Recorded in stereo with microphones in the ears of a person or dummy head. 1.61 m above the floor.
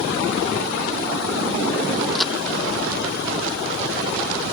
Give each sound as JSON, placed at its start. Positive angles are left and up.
{"t": 2.1, "sound": "a crack", "side_deg": 5}